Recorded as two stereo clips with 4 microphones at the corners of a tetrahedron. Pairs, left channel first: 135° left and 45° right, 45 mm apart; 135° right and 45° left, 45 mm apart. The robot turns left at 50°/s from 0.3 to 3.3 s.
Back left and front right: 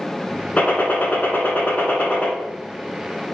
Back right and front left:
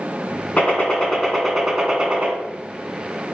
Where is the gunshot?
Straight behind, 1.7 m; by 2.3 s 95° left, 1.7 m.